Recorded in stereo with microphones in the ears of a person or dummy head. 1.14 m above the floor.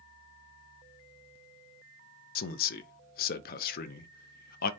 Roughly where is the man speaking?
Left.